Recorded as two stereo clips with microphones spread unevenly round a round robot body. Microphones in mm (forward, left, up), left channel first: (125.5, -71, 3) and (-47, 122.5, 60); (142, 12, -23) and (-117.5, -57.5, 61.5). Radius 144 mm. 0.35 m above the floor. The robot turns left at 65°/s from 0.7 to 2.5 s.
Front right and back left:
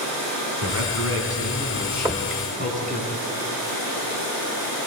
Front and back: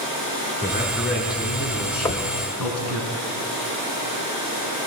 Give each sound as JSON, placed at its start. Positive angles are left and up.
{"t": 0.6, "sound": "a man speaking", "azimuth_deg": 125, "distance_m": 4.0}
{"t": 2.0, "sound": "knocking", "azimuth_deg": 40, "distance_m": 0.9}